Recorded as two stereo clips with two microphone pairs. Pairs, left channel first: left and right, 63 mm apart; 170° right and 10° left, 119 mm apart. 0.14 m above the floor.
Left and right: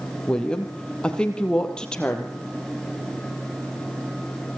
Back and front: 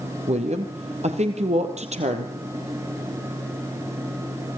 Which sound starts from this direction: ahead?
A woman speaking, at 0.3 s.